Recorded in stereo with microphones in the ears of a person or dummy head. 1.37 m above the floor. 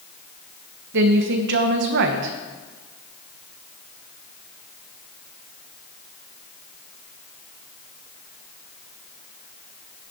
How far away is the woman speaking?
About 1.1 m.